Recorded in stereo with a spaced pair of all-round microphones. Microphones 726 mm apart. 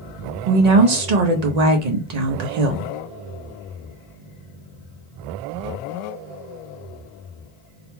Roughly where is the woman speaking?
Right.